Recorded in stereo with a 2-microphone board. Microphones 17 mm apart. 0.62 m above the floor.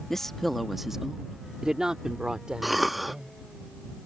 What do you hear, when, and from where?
0.1 s a woman speaking: 25° left (ahead or behind); by 3.3 s 60° right (ahead or behind)
2.6 s a cough: 5° right (ahead or behind)